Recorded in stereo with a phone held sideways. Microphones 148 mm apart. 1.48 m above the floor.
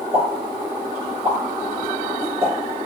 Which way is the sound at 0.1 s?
40° right (ahead or behind).